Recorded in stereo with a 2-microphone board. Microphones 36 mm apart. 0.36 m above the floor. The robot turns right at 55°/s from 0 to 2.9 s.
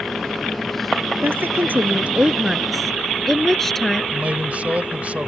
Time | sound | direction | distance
1.2 | a woman speaking | 80° right | ?
4.1 | a man speaking | 40° right (ahead or behind) | ?